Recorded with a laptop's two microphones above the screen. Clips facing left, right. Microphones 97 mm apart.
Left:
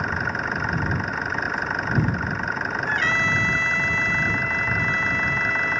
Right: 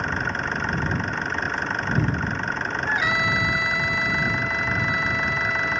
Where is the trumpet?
10° right (ahead or behind).